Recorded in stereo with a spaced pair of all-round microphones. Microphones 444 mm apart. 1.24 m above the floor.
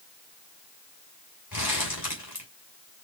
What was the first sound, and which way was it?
Crumpling, 55° left (ahead or behind).